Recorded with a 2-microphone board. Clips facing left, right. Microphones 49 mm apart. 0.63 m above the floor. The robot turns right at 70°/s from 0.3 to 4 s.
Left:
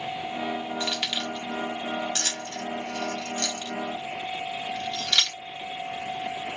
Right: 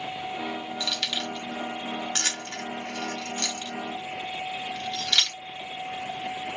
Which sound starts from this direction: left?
Keys jangling, at 0.8 s.